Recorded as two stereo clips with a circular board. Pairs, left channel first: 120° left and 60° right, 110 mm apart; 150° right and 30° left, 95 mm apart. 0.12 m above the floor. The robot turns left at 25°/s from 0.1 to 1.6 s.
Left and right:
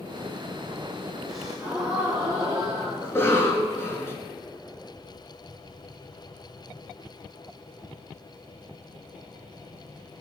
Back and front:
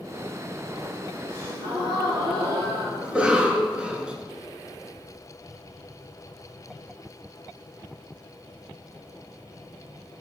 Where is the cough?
90° left, 1.8 m.